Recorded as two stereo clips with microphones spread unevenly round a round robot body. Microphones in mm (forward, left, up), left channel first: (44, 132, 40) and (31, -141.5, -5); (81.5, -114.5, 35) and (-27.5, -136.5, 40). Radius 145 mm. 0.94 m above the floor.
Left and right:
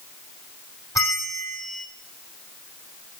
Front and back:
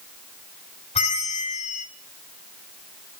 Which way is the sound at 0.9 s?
5° left.